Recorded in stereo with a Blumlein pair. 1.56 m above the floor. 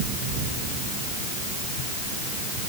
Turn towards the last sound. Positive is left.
No sound to turn to.